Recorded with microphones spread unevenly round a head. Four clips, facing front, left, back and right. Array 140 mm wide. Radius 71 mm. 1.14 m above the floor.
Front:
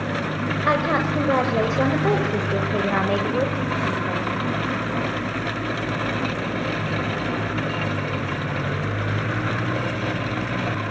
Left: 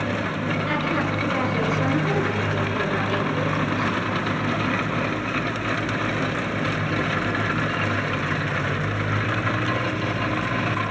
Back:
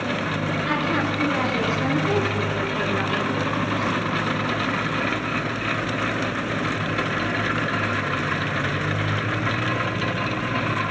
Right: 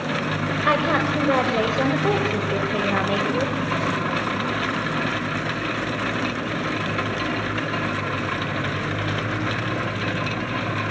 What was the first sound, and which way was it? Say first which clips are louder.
A woman speaking: right 7 dB, front 5 dB; 45° right.